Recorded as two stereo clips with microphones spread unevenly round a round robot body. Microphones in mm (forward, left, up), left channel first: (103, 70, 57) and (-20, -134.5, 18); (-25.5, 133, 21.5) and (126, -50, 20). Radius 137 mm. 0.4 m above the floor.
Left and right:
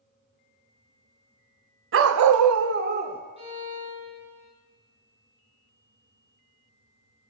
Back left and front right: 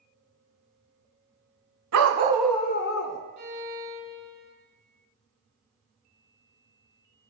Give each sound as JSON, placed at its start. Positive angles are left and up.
{"t": 1.9, "sound": "a dog barking", "azimuth_deg": -85, "distance_m": 0.9}
{"t": 3.4, "sound": "a violin", "azimuth_deg": -55, "distance_m": 4.0}